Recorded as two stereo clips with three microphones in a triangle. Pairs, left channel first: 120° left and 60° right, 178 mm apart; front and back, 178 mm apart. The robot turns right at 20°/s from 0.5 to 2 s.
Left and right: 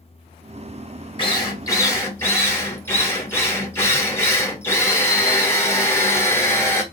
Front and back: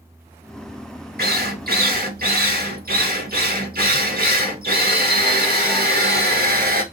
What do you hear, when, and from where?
1.2 s a drill: straight behind, 0.9 m; by 6.8 s 165° right, 0.9 m